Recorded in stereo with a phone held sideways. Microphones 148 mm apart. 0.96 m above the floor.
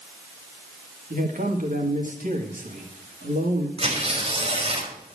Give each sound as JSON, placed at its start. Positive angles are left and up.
{"t": 1.1, "sound": "a man speaking", "side_deg": -65, "distance_m": 2.5}
{"t": 3.8, "sound": "tearing paper", "side_deg": -40, "distance_m": 3.5}